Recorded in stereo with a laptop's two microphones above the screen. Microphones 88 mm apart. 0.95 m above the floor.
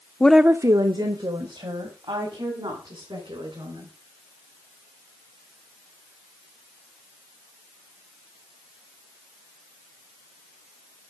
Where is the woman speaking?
20° left (ahead or behind), 0.5 m; by 3.9 s 85° right, 4.5 m.